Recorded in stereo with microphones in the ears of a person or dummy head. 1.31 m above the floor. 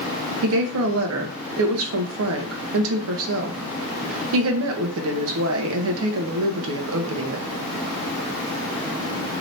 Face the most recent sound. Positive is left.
turn(degrees=-80)